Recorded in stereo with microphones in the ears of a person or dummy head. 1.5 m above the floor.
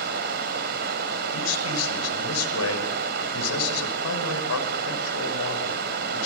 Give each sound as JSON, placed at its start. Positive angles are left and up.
{"t": 0.0, "sound": "running water", "side_deg": -50, "distance_m": 3.0}
{"t": 1.3, "sound": "a man speaking", "side_deg": 80, "distance_m": 6.0}